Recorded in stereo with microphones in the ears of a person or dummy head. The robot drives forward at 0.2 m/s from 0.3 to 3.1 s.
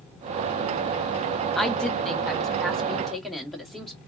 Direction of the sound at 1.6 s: 5° left (ahead or behind).